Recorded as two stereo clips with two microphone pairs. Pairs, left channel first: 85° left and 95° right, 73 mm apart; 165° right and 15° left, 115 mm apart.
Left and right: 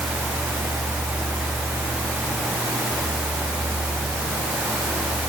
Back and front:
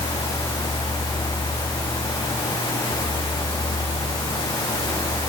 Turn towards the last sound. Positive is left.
No sound to turn to.